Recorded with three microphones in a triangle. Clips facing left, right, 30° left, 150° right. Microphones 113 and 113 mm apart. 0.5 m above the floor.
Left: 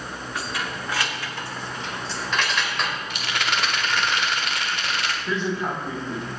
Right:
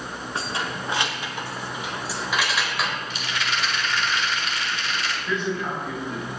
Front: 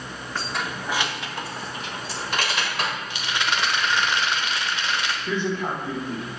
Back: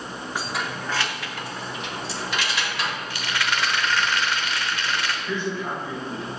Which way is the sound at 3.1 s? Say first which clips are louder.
Left 2 dB, even; 95° left.